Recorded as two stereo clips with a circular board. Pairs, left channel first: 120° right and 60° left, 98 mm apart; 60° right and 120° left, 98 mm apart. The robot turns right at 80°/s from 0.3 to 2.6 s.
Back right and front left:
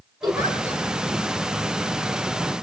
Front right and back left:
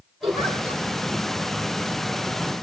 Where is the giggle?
95° left, 4 m; by 0.8 s 140° left, 4 m.